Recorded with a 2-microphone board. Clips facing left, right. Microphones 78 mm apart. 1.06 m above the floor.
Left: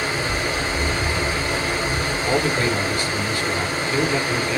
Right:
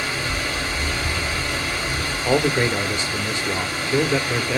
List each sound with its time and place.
0.0 s running water: 25° left (ahead or behind), 1.3 m
2.2 s a man speaking: 20° right (ahead or behind), 0.8 m